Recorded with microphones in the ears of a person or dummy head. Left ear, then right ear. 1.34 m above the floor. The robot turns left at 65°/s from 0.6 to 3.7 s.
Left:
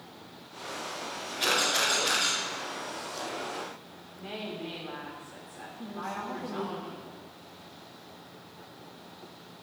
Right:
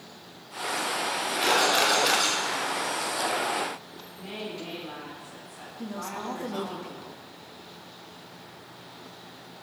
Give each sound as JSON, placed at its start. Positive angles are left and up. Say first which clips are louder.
{"t": 1.4, "sound": "a camera shutter", "louder": "right 3 dB", "side_deg": 0, "distance_m": 5.0}
{"t": 4.2, "sound": "a woman speaking", "louder": "right 1 dB", "side_deg": 15, "distance_m": 4.0}
{"t": 5.8, "sound": "a woman speaking", "louder": "right 1 dB", "side_deg": -35, "distance_m": 1.5}